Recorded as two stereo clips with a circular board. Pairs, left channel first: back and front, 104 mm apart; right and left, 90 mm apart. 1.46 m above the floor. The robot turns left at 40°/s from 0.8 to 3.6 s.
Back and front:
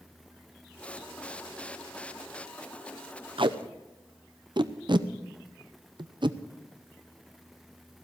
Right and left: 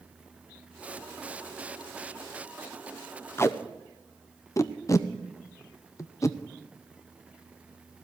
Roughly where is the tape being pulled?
Ahead right.